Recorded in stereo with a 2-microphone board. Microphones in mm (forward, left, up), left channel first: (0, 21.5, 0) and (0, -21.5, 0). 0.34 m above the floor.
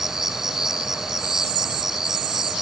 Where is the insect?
10° right (ahead or behind).